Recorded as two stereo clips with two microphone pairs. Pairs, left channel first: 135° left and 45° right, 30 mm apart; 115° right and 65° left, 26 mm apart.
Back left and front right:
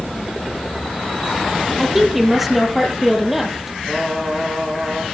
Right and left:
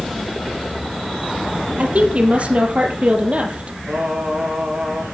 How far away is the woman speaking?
About 3.5 m.